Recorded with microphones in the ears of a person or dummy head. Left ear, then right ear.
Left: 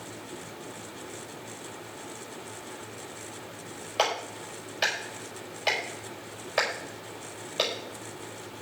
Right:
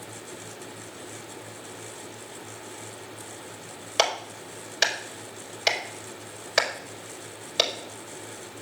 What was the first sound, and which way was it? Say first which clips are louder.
A clap: right 3 dB; 35° right (ahead or behind).